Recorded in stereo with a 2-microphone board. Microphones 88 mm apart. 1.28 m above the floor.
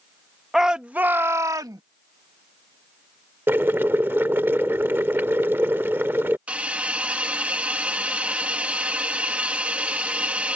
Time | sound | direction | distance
0.5 | a shout | 5° right (ahead or behind) | ?
3.5 | boiling | 25° right (ahead or behind) | ?
6.5 | a hiss | 15° right (ahead or behind) | ?